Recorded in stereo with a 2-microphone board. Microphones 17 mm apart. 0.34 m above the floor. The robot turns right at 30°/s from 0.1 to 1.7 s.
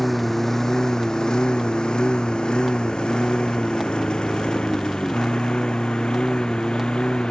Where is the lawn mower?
5° left (ahead or behind); by 7.3 s 85° left.